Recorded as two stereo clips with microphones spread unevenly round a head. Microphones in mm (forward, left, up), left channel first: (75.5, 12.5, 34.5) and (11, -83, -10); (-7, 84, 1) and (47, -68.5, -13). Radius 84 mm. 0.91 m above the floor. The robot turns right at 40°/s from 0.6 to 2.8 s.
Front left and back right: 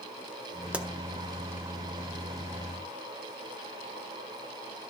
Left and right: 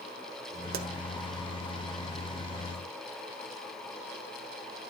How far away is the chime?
I don't hear a chime.